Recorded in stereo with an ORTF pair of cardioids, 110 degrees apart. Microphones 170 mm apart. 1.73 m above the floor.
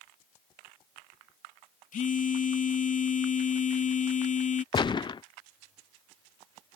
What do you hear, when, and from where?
1.9 s a phone buzzing: 50° left
4.7 s a gunshot: 25° left